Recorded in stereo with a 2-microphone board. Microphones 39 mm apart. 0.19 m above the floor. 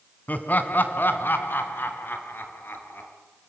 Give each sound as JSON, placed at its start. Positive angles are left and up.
{"t": 0.3, "sound": "laughter", "side_deg": 40, "distance_m": 1.9}